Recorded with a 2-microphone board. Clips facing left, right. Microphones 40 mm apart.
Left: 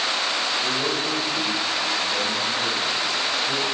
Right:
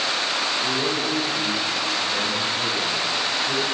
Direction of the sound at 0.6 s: Centre (ahead or behind).